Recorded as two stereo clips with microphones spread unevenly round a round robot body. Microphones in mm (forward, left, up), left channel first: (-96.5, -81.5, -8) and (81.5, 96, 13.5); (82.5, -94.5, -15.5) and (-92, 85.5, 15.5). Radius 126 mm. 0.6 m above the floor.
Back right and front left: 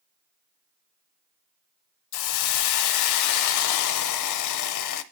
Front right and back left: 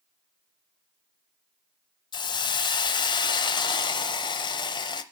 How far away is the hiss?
About 0.6 m.